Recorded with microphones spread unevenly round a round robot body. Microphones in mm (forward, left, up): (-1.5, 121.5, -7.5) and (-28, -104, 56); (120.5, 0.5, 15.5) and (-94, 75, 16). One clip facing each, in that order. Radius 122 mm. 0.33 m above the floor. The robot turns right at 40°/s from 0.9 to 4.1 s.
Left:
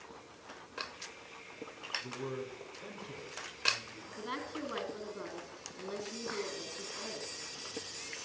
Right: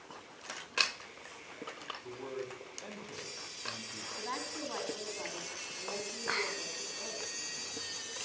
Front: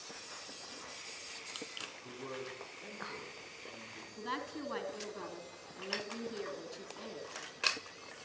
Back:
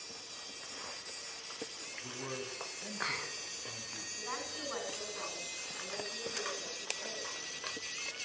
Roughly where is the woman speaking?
Ahead.